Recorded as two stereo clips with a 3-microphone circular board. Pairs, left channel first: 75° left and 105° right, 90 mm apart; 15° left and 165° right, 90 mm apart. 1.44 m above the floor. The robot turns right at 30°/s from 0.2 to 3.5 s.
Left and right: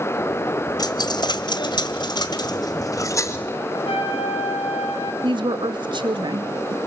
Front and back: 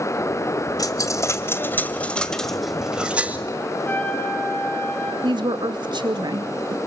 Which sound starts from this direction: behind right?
A woman speaking, at 5.2 s.